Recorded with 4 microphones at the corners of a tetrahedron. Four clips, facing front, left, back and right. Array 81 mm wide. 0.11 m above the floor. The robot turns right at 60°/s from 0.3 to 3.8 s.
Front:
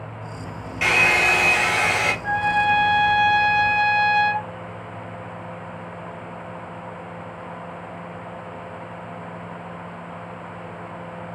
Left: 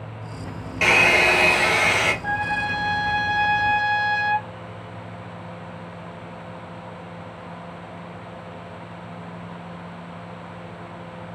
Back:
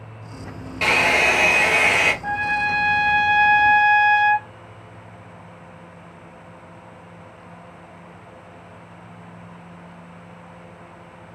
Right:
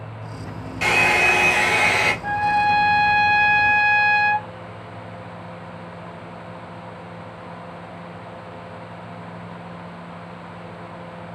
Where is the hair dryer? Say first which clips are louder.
Left 1 dB, even; 120° left, 1.4 m; by 2.1 s 165° right, 1.4 m.